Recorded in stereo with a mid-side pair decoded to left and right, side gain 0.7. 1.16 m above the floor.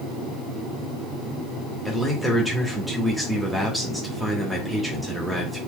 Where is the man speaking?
Straight ahead, 2 m.